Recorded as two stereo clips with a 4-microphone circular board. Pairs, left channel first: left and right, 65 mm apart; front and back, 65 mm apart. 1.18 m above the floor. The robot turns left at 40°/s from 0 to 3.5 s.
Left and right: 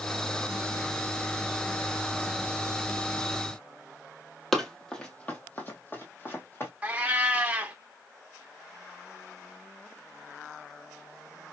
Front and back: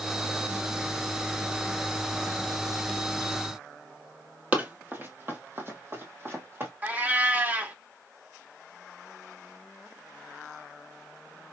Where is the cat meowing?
140° right, 0.9 m.